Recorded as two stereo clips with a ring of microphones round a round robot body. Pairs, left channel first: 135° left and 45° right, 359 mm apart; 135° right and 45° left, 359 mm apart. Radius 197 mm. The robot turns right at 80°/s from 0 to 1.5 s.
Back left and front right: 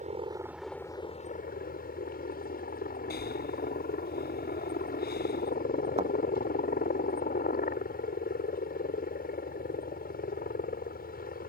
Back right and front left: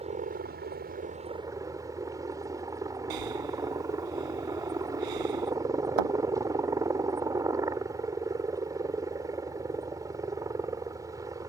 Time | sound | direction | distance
0.0 | a helicopter | 5° right | ?
3.1 | breathing | 70° left | ?
6.0 | a thud | 30° left | ?